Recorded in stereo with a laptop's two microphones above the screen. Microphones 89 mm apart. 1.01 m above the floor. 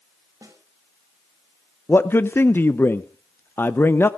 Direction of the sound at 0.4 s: 35° right (ahead or behind).